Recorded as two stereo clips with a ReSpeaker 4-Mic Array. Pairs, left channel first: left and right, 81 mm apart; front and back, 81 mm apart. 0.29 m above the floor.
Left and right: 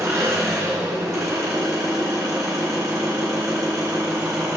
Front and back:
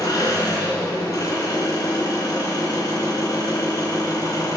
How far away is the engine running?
About 3 m.